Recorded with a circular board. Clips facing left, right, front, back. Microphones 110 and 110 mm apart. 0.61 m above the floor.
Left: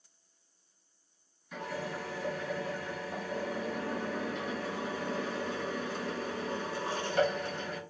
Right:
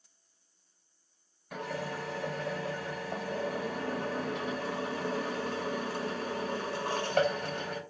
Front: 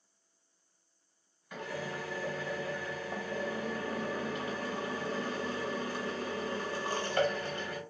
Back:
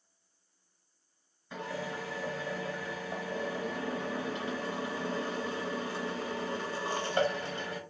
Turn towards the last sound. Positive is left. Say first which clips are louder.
# right 1 dB, back 1 dB
turn(degrees=-115)